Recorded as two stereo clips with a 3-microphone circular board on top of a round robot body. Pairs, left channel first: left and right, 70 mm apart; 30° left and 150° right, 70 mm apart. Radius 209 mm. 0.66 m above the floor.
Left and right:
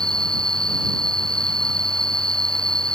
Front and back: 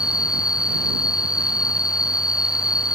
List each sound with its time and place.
0.0 s an insect: 10° left